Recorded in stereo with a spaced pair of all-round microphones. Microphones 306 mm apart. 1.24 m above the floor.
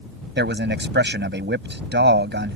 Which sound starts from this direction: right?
A man speaking, at 0.4 s.